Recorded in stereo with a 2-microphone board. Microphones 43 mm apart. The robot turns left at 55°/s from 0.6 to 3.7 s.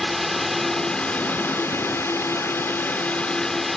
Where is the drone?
175° left; by 3.8 s 5° left.